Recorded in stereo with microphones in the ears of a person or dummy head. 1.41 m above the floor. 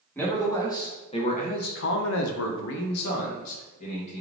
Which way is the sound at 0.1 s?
15° left (ahead or behind).